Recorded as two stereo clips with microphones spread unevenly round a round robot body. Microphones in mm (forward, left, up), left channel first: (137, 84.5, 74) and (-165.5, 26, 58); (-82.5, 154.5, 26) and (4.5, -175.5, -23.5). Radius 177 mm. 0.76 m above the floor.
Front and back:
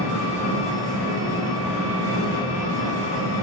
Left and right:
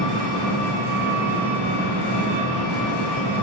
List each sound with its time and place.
0.0 s an engine running: 125° left, 1.9 m